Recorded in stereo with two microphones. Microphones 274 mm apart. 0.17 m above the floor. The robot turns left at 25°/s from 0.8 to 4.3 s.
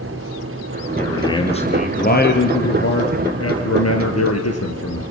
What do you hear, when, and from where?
1.0 s a man speaking: 170° left, 3 m; by 5.0 s 85° left, 3 m